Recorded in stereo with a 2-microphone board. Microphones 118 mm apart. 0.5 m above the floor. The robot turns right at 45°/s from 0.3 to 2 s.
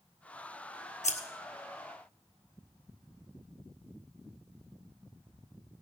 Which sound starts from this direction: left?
Scissors, at 1.0 s.